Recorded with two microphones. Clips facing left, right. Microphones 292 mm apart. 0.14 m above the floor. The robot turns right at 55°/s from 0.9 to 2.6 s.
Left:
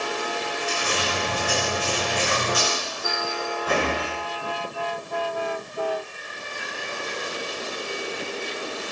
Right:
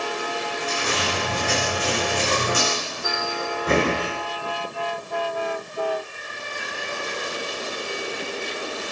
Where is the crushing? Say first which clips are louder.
Right 2 dB; 120° right, 8.5 m; by 4.2 s 25° right, 8.5 m.